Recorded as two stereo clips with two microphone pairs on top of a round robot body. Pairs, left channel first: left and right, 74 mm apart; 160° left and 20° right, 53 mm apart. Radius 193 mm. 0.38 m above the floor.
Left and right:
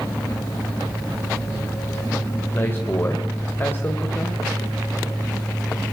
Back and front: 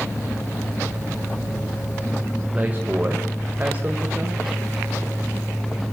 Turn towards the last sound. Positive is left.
turn(degrees=40)